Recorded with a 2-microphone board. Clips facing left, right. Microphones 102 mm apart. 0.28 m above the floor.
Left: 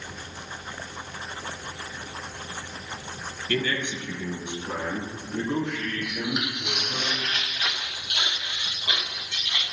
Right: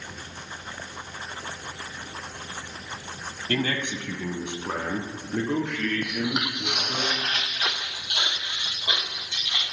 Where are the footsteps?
50° right (ahead or behind), 0.6 m; by 9.6 s 20° right (ahead or behind), 3 m.